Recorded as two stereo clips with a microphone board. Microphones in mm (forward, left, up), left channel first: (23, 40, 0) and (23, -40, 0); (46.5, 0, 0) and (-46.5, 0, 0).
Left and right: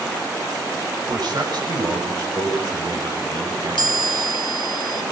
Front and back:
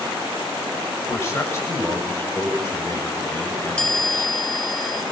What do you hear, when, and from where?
1.1 s a man speaking: 60° right, 7 m
3.8 s a chime: 80° left, 4 m